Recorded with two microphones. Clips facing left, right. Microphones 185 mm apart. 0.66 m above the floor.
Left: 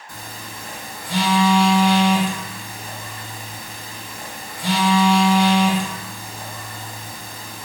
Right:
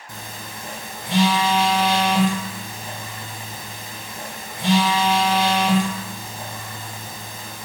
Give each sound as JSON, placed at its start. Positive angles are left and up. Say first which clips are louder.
{"t": 0.1, "sound": "a phone buzzing", "louder": "even", "side_deg": -25, "distance_m": 0.5}